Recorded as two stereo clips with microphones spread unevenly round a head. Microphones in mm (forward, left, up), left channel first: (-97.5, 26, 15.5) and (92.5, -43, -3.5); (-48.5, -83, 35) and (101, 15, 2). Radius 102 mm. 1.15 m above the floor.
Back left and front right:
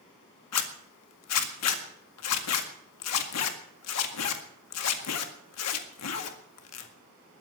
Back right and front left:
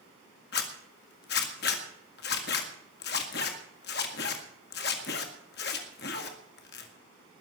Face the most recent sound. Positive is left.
turn(degrees=170)